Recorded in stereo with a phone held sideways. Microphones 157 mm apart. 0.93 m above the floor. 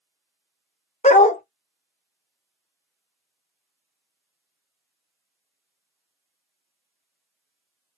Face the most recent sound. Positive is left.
turn(degrees=45)  # may be behind; listen again after turning